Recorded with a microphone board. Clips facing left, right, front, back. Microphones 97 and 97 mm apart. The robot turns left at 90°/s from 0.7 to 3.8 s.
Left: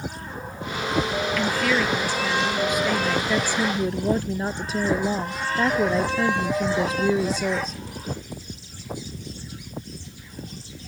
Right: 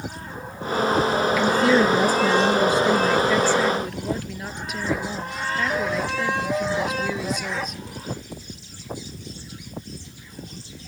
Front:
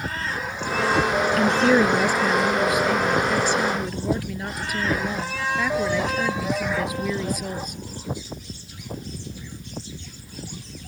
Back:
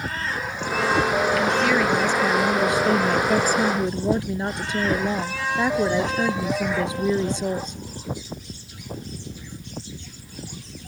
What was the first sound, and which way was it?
A woman speaking, 10° right.